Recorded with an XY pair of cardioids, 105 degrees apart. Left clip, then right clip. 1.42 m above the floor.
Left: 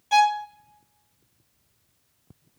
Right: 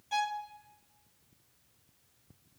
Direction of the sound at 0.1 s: 65° left.